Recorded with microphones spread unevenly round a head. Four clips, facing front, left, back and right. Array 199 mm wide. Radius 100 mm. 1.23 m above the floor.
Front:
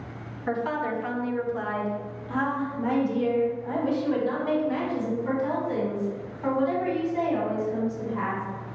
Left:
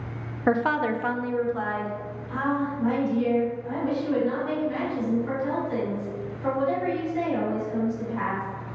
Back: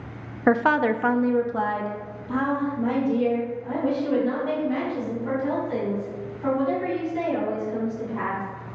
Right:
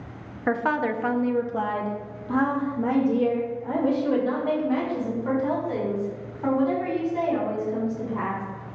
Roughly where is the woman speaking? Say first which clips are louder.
Left 1 dB, back 8 dB; behind.